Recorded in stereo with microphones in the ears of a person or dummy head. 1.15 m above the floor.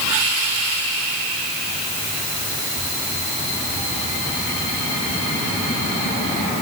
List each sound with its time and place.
Only background noise.